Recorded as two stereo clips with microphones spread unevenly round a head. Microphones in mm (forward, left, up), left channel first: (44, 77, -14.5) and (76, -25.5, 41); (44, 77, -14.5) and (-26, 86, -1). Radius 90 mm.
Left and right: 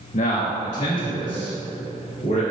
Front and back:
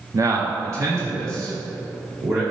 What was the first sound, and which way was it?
A man speaking, 125° left.